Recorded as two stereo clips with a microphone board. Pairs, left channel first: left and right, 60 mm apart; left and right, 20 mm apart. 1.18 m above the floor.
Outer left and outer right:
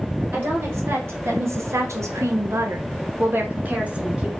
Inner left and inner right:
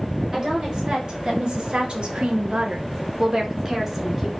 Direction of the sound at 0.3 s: 40° right (ahead or behind).